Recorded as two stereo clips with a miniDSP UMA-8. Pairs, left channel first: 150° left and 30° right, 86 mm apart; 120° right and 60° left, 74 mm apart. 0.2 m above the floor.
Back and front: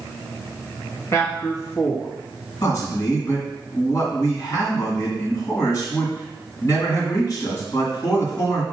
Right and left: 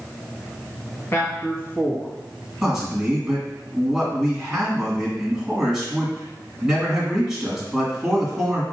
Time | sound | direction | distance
1.1 | a man speaking | 170° right | 1.5 m
2.6 | a man speaking | 140° left | 2.0 m